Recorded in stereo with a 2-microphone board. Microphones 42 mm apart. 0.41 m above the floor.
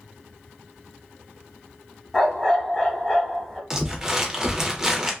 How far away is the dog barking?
About 1.0 m.